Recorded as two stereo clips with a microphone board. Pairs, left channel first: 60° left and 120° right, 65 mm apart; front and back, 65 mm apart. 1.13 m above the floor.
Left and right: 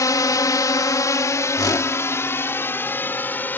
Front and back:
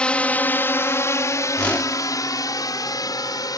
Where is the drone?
70° left; by 3.6 s straight ahead.